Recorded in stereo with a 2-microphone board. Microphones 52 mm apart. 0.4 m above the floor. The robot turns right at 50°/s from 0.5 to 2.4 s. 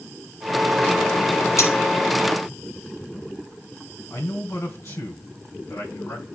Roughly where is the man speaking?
Left.